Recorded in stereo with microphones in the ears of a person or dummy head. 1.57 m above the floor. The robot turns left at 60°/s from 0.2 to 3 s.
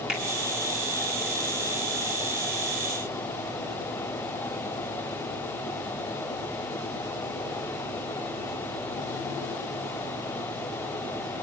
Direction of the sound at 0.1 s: Centre (ahead or behind).